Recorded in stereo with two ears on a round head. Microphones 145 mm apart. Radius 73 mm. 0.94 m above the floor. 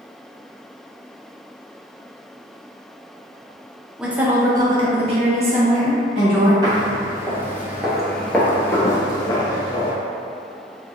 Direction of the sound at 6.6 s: 25° right (ahead or behind).